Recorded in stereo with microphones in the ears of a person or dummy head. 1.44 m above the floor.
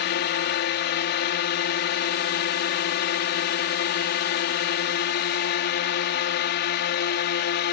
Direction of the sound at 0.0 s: 50° left (ahead or behind).